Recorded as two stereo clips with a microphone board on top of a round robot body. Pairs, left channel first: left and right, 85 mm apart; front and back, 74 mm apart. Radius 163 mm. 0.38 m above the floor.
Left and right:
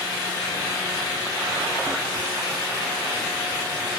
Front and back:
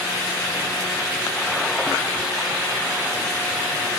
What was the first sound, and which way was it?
Only background noise.